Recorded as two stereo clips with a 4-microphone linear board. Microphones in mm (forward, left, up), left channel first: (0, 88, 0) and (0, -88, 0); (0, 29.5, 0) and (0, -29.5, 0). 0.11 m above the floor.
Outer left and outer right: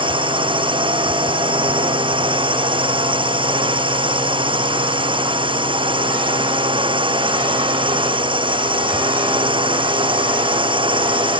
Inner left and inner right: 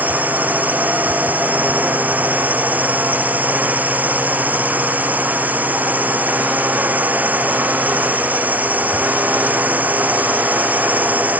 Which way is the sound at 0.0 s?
30° right (ahead or behind).